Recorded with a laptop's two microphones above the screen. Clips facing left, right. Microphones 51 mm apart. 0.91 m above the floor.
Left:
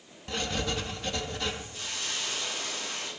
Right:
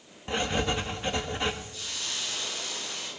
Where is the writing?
25° right (ahead or behind), 1.1 m.